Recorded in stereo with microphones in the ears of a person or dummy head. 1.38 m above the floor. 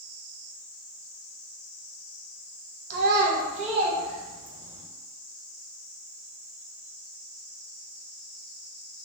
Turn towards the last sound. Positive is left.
turn(degrees=-15)  # may be behind; listen again after turning